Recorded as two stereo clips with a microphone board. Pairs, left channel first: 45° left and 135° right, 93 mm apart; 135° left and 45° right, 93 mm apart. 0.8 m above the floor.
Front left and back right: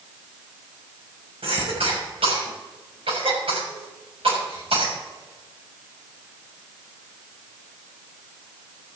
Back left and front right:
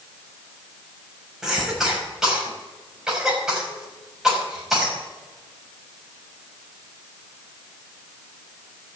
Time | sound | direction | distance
1.4 | a cough | 130° right | 5.5 m